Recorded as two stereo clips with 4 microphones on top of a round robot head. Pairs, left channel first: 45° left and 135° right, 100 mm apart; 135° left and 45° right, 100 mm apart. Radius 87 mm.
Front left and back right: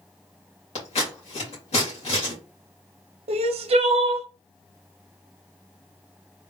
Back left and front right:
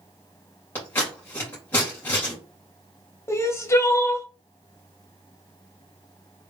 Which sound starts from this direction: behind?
Crying, at 3.3 s.